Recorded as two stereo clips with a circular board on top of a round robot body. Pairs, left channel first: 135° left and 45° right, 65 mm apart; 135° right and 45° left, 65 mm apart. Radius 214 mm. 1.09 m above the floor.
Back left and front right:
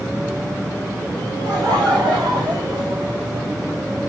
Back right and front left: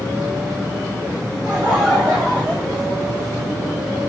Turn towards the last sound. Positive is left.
turn(degrees=-50)